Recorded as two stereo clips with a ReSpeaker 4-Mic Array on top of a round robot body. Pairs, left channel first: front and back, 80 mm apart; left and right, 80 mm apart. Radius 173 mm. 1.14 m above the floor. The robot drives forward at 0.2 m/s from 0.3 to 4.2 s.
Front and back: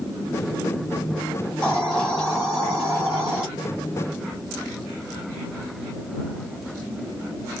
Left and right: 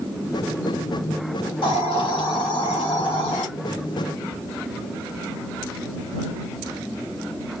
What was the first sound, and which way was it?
A hiss, 80° left.